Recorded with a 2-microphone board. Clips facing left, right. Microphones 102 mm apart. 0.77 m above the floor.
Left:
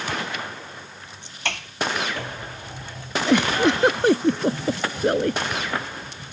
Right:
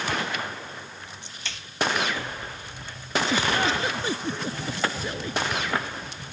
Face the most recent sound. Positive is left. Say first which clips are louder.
# left 8 dB
turn(degrees=60)  # may be behind; listen again after turning